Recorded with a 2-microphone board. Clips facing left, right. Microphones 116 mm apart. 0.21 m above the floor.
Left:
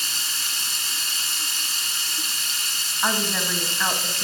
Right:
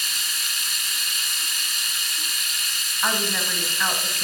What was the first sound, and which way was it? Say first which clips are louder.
Running water: even; 30° left (ahead or behind).